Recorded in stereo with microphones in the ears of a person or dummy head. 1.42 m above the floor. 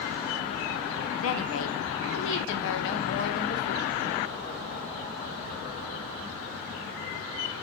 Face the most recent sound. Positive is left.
turn(degrees=60)  # may be behind; listen again after turning